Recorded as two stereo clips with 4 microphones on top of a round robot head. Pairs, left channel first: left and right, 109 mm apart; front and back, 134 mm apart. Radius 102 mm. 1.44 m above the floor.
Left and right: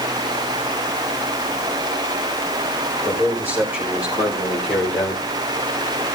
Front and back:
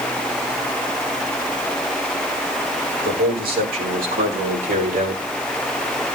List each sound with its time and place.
3.0 s a man speaking: 160° right, 6.5 m; by 5.2 s straight behind, 5 m